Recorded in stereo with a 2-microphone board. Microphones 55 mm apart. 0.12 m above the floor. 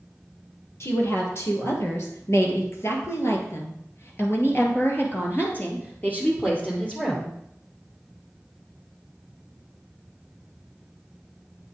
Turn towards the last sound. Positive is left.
turn(degrees=20)  # may be behind; listen again after turning